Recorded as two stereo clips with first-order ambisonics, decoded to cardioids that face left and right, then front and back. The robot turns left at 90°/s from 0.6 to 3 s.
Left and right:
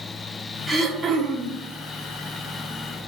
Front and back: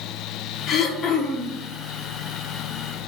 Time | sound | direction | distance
0.7 | throat clearing | 15° right | 0.7 m